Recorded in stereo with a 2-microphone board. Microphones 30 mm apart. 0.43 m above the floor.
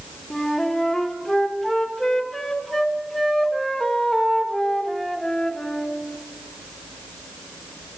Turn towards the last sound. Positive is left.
turn(degrees=10)  # may be behind; listen again after turning